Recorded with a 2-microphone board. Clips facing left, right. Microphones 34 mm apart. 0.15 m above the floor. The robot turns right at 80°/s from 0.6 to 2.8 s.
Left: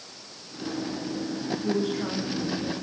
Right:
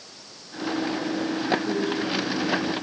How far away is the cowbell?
No cowbell in this recording.